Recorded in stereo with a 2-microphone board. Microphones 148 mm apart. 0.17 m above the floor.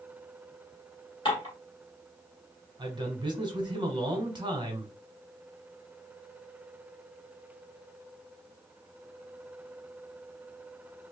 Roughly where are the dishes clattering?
Left.